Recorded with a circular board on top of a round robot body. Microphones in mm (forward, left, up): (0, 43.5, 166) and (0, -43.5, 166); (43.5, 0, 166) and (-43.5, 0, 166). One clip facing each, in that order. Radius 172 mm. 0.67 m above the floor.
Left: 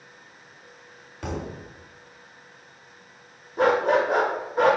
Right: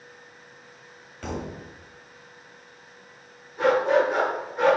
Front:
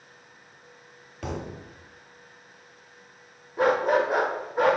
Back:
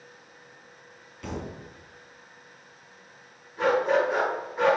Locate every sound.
1.2 s a thud: 10° left, 1.4 m
3.6 s a dog barking: 45° left, 0.6 m